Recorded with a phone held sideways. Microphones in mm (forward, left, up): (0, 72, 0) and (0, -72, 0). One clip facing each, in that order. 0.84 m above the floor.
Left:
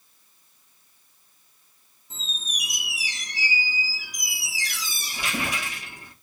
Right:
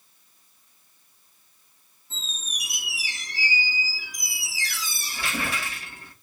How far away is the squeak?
About 0.7 m.